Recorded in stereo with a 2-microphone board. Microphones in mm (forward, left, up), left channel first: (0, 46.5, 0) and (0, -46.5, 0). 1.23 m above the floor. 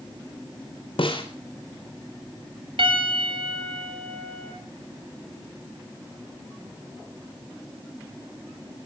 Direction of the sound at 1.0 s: 70° left (ahead or behind).